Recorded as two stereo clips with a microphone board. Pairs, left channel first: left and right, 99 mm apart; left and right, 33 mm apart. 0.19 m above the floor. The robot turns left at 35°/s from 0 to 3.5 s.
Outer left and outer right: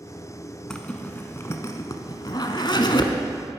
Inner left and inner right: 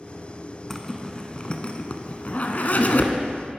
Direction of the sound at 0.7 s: 10° left (ahead or behind).